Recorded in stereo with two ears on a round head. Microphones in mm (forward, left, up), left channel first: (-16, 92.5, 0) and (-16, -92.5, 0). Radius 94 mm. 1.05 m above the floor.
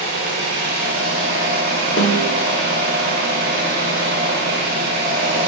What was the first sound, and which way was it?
An engine running, 55° right (ahead or behind).